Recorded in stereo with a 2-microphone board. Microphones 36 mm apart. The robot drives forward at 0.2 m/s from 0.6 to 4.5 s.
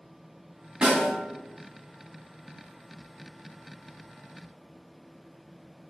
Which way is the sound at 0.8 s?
25° right (ahead or behind).